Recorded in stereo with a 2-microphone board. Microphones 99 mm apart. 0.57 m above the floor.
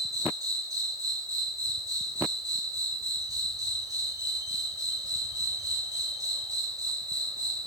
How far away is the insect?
About 0.7 m.